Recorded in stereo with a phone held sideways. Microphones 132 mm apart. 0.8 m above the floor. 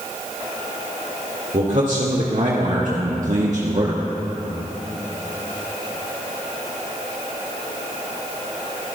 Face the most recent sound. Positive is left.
turn(degrees=-50)  # may be behind; listen again after turning